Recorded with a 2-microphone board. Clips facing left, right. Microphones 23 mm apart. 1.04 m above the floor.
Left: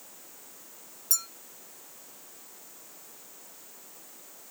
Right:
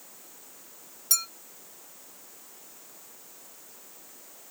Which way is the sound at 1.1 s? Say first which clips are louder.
Right 4 dB; 55° right (ahead or behind).